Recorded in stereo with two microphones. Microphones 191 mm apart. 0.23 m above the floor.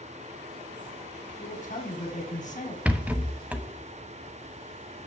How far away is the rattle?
About 0.7 m.